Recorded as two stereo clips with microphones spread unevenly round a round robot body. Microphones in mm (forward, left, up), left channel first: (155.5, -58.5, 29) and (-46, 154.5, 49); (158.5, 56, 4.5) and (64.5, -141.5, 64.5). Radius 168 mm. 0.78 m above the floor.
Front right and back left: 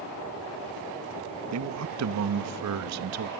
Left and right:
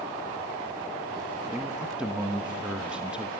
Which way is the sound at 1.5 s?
145° left.